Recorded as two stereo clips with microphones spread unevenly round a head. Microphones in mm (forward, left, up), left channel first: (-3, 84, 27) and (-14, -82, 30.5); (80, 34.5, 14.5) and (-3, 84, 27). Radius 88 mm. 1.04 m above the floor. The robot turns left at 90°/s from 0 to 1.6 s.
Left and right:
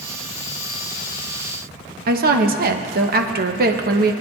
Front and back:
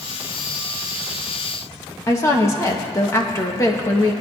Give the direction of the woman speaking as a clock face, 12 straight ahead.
3 o'clock.